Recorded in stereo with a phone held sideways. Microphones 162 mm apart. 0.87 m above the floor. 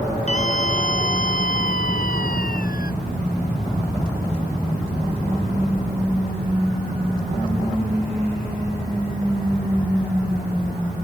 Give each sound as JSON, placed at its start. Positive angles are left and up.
{"t": 0.3, "sound": "a scream", "side_deg": 50}